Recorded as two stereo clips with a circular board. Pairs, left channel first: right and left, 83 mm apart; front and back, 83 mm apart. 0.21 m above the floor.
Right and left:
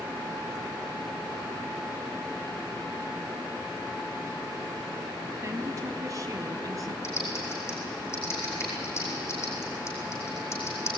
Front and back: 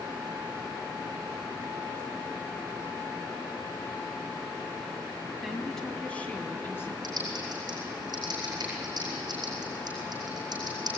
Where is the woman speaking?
95° left, 1.5 m; by 6.9 s 55° left, 2.5 m.